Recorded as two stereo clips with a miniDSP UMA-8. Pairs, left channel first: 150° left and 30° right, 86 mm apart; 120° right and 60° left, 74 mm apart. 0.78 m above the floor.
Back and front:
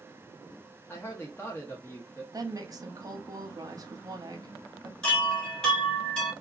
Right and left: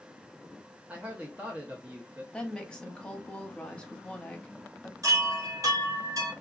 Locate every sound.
0.9 s a man speaking: 115° left, 0.7 m
2.3 s a woman speaking: 50° right, 0.7 m
5.0 s a chime: 70° left, 1.5 m